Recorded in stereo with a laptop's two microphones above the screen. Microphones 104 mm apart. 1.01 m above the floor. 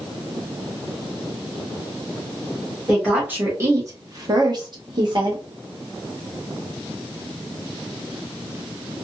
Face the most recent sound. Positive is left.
turn(degrees=-45)  # may be behind; listen again after turning